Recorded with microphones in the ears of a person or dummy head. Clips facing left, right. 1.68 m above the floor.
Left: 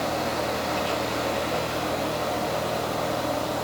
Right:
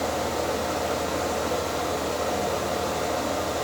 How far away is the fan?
About 4 m.